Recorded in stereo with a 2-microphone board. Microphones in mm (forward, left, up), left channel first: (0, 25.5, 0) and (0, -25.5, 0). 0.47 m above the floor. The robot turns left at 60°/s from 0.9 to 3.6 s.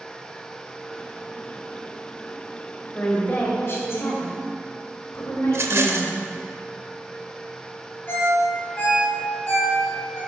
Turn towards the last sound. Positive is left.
turn(degrees=45)  # may be behind; listen again after turning